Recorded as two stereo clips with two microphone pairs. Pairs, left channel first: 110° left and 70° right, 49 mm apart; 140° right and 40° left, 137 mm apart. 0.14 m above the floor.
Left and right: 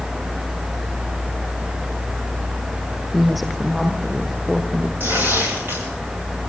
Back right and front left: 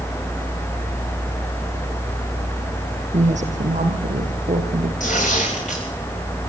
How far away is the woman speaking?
About 6 m.